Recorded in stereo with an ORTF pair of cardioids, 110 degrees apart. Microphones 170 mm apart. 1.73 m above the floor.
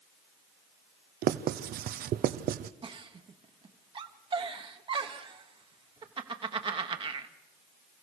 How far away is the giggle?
About 1.2 m.